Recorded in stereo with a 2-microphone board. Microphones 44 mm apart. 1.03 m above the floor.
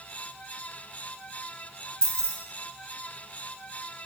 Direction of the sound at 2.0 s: 15° left (ahead or behind).